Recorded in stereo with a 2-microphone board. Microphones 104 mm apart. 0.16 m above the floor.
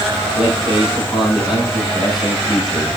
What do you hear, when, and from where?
0.4 s a man speaking: 50° left (ahead or behind), 6.5 m